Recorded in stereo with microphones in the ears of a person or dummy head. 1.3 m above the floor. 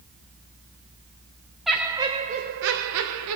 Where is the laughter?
5° left (ahead or behind), 0.9 m; by 3.4 s 75° right (ahead or behind), 1.0 m.